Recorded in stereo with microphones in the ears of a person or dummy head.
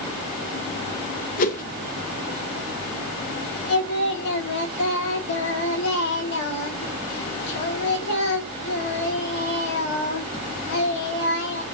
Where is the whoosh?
45° left (ahead or behind), 1.0 m.